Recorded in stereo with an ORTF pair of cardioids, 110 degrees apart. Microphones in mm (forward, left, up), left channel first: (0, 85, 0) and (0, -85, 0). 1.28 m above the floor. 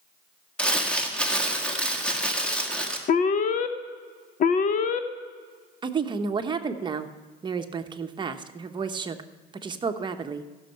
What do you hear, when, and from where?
0.6 s crumpling: 5° left, 1.6 m
3.1 s an alarm: 50° left, 0.8 m
5.8 s a woman speaking: 30° right, 1.0 m